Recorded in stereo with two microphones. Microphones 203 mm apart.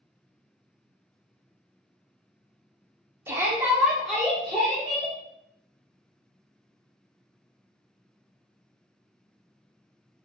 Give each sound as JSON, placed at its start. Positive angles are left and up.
{"t": 3.3, "sound": "a shout", "side_deg": -10, "distance_m": 0.8}